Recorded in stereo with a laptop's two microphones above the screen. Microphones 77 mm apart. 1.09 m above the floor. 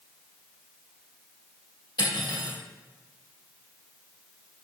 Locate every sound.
2.0 s cutlery clinking: 70° left (ahead or behind), 1.6 m